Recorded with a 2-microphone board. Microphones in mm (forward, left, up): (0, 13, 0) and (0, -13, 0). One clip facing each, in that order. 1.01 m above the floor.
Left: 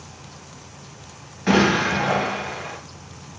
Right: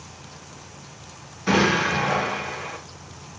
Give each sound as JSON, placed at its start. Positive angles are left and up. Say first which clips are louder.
{"t": 1.5, "sound": "an explosion", "louder": "left 2 dB", "side_deg": 50, "distance_m": 1.8}